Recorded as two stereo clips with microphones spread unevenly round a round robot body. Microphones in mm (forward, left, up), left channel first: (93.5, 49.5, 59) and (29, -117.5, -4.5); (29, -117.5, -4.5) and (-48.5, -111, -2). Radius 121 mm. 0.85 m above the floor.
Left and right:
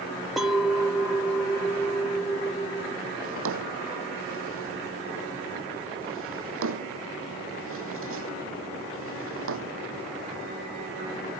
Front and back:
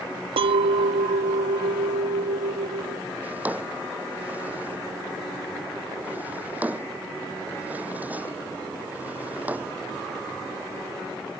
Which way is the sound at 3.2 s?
115° right.